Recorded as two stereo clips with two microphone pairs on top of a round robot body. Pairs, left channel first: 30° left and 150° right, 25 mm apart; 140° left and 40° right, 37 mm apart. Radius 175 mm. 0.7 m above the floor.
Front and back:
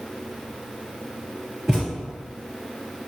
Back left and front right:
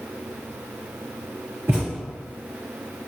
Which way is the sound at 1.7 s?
55° right.